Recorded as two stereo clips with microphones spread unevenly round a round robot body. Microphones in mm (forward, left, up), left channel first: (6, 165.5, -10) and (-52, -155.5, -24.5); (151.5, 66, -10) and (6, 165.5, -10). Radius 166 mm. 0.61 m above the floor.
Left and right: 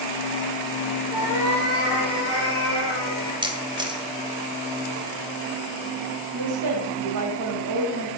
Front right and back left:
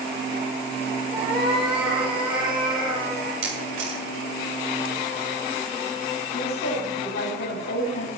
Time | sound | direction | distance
1.1 | a cat meowing | 150° right | 7.5 m
3.4 | a camera shutter | 175° right | 1.9 m
6.3 | a woman speaking | 65° right | 3.5 m